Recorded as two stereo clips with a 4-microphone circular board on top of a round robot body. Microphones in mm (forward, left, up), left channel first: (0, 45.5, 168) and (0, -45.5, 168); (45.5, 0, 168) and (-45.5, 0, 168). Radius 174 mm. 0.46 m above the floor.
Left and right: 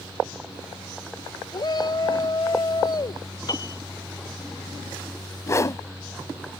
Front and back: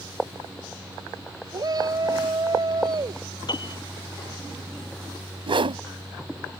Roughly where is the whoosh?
Behind left.